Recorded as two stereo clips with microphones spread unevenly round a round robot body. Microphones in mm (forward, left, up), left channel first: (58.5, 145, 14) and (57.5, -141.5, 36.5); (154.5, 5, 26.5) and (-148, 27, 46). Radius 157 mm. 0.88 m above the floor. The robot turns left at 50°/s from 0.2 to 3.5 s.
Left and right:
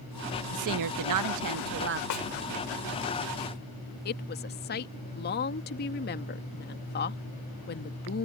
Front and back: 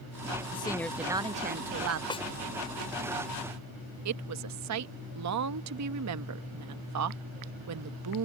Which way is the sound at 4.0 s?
145° left.